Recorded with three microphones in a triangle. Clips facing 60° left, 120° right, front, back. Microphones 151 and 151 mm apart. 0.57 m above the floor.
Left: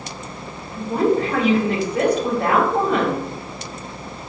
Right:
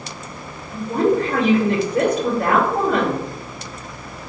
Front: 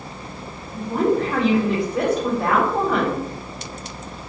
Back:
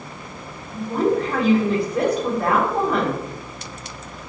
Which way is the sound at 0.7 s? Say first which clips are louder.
Right 1 dB, even; 90° right.